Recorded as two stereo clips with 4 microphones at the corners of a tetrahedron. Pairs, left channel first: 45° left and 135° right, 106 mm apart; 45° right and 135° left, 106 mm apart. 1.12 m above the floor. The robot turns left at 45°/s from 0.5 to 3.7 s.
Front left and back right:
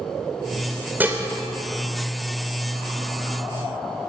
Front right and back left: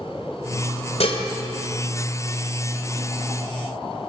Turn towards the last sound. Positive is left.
turn(degrees=175)